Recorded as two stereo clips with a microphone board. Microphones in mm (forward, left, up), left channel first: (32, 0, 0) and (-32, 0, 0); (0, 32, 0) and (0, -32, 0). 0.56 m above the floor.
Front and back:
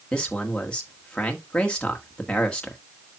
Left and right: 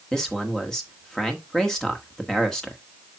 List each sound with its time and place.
0.1 s a man speaking: 30° left, 1.2 m